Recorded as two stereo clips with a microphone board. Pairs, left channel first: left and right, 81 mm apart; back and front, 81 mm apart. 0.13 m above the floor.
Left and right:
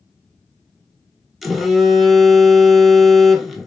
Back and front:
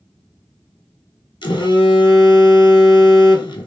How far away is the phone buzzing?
About 0.5 m.